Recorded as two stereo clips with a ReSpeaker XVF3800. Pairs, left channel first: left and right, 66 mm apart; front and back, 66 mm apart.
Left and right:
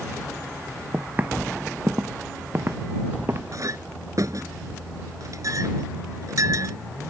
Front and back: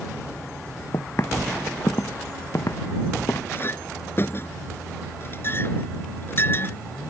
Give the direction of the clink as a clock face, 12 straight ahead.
2 o'clock.